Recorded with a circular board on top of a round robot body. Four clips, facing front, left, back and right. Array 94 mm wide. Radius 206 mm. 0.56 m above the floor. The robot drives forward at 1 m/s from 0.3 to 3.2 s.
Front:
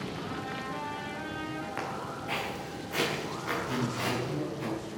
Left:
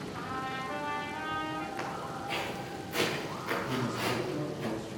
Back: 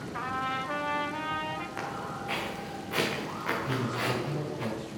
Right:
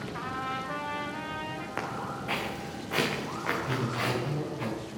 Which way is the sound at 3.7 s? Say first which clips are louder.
Right 2 dB, back 1 dB; 125° right.